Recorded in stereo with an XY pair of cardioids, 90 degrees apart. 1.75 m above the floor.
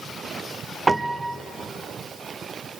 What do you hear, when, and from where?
0.9 s a piano: 20° right, 0.9 m